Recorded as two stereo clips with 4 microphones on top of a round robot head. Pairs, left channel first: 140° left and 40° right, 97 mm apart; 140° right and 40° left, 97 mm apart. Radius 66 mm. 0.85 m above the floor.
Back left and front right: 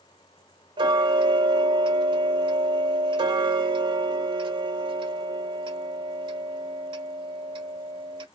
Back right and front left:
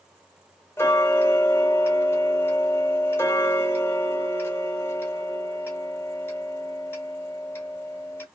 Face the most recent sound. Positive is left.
turn(degrees=-75)